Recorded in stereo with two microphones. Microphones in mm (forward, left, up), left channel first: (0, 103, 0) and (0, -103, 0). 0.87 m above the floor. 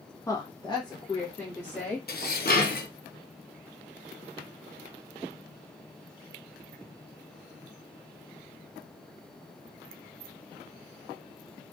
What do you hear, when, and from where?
0.3 s a woman speaking: 15° left (ahead or behind), 0.5 m
2.1 s dishes clattering: 50° left (ahead or behind), 0.6 m